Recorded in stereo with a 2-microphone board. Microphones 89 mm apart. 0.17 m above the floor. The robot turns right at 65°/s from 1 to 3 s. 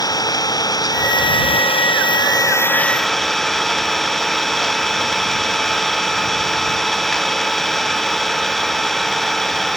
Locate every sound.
0.0 s an engine running: 45° left; by 9.8 s 175° left